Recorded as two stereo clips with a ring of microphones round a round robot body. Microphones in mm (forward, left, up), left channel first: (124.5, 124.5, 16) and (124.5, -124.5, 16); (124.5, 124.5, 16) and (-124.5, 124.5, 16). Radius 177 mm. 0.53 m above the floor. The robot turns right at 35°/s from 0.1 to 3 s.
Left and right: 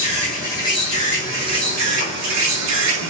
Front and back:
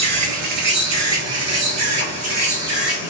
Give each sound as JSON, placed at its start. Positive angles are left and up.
{"t": 0.0, "sound": "an insect", "azimuth_deg": 170, "distance_m": 0.9}